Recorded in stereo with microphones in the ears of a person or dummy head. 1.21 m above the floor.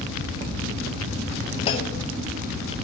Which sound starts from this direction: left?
A clunk, at 1.7 s.